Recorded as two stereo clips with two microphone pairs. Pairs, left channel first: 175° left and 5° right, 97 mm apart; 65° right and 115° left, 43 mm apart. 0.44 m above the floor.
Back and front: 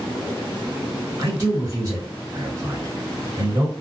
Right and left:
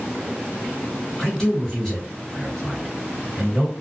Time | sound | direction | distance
1.2 | a man speaking | straight ahead | 1.4 m